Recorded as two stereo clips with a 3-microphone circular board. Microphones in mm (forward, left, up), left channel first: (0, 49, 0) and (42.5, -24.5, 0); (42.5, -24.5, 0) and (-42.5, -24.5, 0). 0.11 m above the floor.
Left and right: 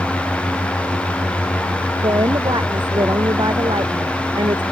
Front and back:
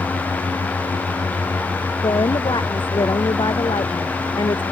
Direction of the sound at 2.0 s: 30° right.